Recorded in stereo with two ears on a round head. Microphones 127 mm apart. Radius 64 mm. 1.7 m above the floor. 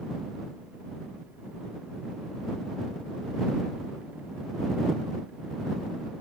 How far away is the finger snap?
No finger snap in this recording.